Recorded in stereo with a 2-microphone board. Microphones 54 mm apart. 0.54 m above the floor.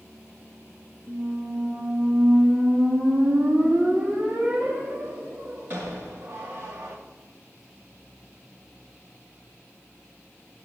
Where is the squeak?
40° right (ahead or behind), 2 m.